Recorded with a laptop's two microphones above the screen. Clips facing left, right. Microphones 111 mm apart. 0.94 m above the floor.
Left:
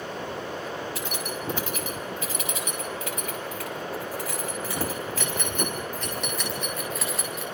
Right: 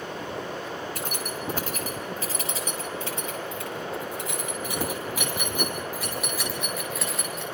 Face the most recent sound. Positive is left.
turn(degrees=0)  # may be behind; listen again after turning